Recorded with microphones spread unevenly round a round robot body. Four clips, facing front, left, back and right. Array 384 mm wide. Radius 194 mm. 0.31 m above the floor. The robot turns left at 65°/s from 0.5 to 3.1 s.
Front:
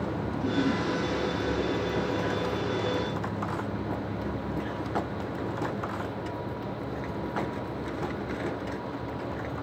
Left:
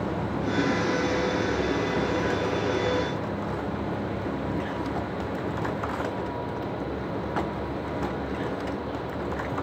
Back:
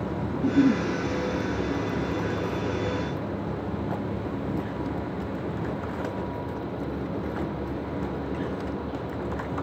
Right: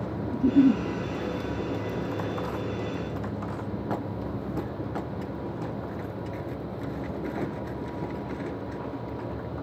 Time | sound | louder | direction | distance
0.3 | a giggle | right 7 dB, back 7 dB | 115° right | 3.5 m